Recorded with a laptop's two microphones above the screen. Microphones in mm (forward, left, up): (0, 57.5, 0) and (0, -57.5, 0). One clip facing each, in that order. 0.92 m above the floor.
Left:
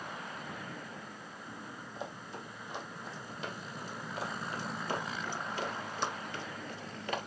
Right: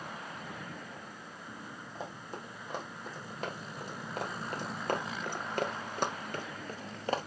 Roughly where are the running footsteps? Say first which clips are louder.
Right 1 dB; right.